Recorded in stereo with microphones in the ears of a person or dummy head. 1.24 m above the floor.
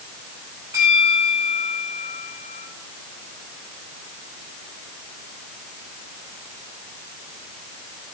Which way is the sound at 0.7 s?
10° right (ahead or behind).